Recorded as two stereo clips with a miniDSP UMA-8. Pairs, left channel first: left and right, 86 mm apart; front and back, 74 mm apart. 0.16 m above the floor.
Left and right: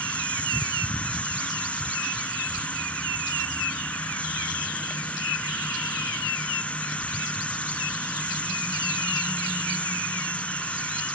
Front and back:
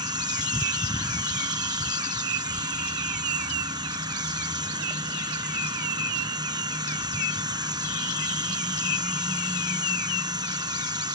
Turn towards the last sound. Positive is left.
turn(degrees=165)